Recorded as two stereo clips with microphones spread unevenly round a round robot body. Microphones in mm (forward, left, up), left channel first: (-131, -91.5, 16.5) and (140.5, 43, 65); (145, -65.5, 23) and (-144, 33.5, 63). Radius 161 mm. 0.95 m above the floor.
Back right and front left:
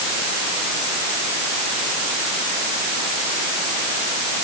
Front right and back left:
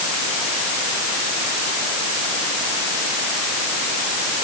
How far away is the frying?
No frying in this recording.